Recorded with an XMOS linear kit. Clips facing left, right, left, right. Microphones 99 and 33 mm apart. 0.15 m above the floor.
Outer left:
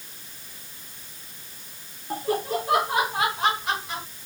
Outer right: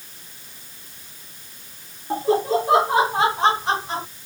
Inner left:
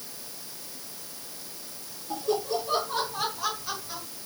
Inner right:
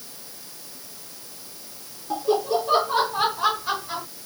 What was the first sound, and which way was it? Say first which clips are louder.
Laughter: outer right 7 dB, inner right 6 dB; 25° right (ahead or behind).